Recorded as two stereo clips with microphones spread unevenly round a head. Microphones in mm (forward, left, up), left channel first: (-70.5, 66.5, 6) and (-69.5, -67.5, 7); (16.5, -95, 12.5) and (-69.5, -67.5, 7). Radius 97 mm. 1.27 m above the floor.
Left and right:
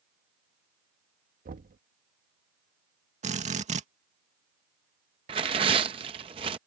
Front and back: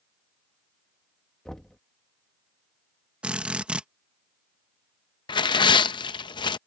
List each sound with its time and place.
1.4 s knocking: 100° right
3.2 s a drill: 120° right
5.3 s tearing paper: 35° right